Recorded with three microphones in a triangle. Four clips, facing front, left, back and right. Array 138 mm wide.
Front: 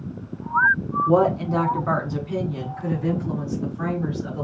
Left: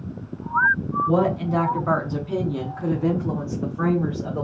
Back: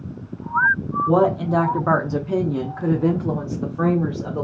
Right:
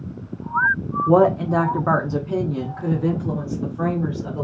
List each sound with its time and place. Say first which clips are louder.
1.1 s a woman speaking: right 7 dB, back 1 dB; 95° right, 1.1 m; by 4.5 s 155° left, 1.9 m